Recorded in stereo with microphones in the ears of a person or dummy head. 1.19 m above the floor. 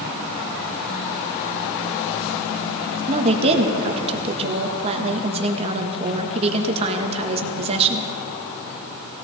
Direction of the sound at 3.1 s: 35° right (ahead or behind).